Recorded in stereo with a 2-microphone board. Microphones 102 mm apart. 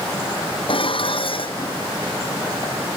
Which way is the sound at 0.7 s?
60° left (ahead or behind).